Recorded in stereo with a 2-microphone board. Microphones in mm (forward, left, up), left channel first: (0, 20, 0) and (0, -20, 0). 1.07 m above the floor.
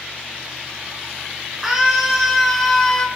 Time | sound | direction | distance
1.6 | a scream | 5° right (ahead or behind) | 3.5 m